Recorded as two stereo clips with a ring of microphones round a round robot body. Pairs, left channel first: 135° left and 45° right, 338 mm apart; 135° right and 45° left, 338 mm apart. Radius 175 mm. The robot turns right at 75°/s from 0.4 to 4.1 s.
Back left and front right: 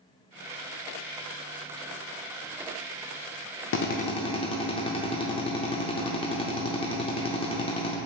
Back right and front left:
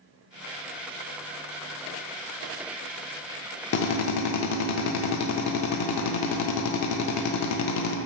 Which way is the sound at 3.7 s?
175° left.